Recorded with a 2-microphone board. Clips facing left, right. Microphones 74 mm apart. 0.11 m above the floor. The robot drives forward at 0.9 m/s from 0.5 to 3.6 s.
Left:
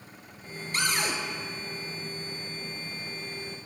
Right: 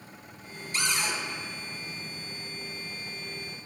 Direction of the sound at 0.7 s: 45° left (ahead or behind).